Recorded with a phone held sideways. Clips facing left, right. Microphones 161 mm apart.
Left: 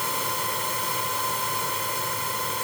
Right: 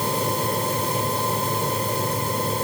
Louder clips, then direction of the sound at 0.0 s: Right 7 dB; 40° right (ahead or behind).